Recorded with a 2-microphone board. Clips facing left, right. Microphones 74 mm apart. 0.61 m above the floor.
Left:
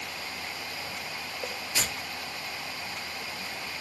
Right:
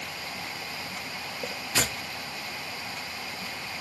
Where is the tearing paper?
70° right (ahead or behind), 0.5 m.